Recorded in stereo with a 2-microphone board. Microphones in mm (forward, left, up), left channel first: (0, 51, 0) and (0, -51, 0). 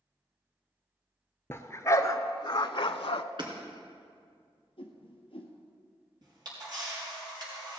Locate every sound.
1.5 s a dog barking: 25° left (ahead or behind), 0.9 m; by 3.2 s 60° left (ahead or behind), 0.5 m
3.4 s hammering: 50° right (ahead or behind), 2.5 m
4.8 s a whoosh: 60° left (ahead or behind), 1.6 m
6.2 s a camera shutter: 45° right (ahead or behind), 4.5 m